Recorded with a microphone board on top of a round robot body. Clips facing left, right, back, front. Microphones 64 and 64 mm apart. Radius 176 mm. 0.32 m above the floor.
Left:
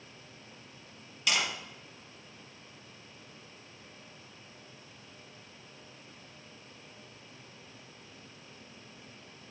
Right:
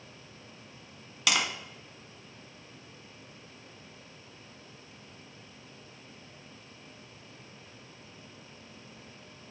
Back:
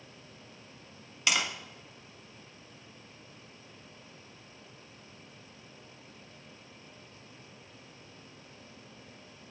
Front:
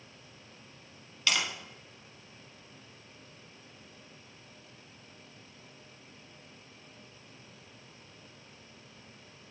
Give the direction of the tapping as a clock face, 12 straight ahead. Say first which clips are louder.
Right 2 dB, back 1 dB; 4 o'clock.